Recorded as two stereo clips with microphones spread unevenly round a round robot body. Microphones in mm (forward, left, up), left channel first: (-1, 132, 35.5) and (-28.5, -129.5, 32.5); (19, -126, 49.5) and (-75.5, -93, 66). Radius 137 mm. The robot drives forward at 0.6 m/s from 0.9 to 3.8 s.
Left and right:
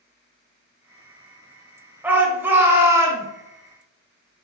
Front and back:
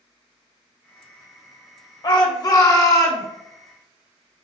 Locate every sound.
2.0 s a shout: 15° right, 2 m; by 3.3 s 25° right, 1.6 m